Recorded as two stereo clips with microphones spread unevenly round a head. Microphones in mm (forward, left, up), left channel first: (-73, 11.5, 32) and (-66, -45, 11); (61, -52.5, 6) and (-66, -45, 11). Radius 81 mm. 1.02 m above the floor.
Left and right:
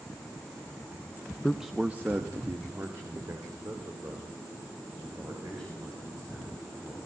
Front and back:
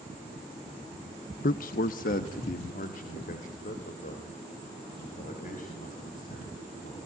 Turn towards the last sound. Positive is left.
turn(degrees=-20)